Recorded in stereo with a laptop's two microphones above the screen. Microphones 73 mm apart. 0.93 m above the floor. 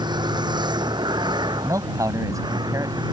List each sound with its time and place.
0.0 s a vehicle: 80° right; by 3.1 s 85° right
1.6 s a man speaking: 50° right (ahead or behind)